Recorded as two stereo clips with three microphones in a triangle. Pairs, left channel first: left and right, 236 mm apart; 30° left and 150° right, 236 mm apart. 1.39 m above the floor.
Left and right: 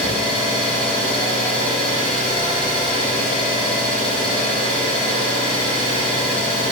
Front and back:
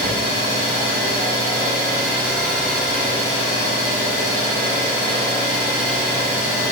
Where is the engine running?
155° left, 2.0 m.